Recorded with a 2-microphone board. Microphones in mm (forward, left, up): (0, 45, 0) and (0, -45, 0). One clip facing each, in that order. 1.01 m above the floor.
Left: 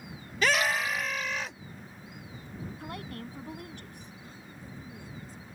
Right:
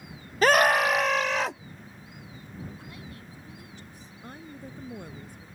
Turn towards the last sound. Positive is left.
turn(degrees=-60)  # may be behind; listen again after turning